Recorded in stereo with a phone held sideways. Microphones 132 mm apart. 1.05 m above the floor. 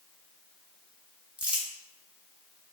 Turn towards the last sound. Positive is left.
turn(degrees=-10)  # may be behind; listen again after turning